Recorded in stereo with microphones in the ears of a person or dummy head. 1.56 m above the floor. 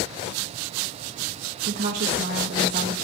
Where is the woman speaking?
50° right (ahead or behind), 1.2 m.